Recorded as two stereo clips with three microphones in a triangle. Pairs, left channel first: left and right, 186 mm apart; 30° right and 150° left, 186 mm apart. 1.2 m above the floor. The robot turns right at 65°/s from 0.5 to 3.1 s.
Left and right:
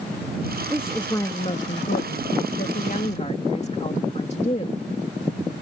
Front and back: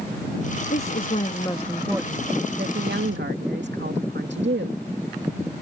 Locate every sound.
0.7 s a woman speaking: 15° right; by 4.8 s 145° left